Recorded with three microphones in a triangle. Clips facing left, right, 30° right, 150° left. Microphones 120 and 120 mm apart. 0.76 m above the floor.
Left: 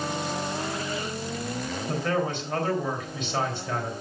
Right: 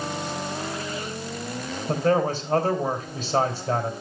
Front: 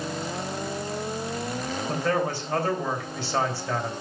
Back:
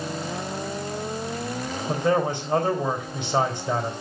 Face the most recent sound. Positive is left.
turn(degrees=-140)